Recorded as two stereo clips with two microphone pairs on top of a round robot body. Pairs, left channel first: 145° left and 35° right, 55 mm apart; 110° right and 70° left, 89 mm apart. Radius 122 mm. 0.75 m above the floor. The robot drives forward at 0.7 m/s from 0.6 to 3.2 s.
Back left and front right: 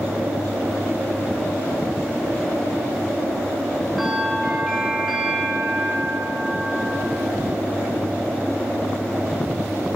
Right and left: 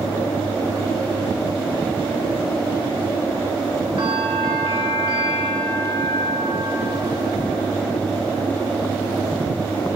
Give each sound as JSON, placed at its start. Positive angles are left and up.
{"t": 4.0, "sound": "a bell", "azimuth_deg": 55, "distance_m": 2.5}